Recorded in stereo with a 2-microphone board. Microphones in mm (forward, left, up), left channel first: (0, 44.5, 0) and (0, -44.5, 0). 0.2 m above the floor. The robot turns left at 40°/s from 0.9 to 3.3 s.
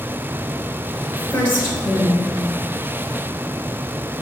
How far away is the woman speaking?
About 1.8 m.